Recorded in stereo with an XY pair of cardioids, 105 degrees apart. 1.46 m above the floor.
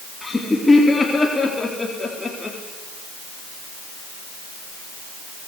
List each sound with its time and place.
0.2 s laughter: 15° left, 4 m